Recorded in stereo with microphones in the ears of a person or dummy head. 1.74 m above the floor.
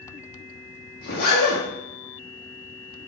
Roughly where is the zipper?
Left.